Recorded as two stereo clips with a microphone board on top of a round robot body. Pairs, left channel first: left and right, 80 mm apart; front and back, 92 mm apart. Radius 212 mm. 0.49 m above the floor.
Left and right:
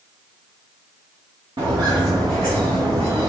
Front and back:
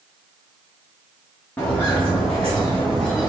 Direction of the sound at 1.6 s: 70° right.